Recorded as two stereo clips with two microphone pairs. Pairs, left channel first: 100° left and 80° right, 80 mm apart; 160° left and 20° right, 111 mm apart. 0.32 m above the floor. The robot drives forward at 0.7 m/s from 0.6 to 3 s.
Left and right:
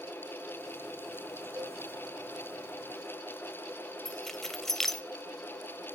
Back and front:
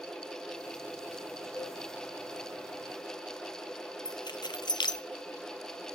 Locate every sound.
1.6 s a cowbell: 120° right, 6 m
4.0 s keys jangling: 175° right, 0.8 m